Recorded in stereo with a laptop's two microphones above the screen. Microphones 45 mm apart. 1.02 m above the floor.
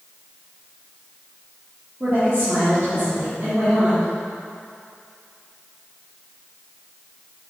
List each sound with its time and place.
2.0 s a woman speaking: 50° right (ahead or behind), 2.5 m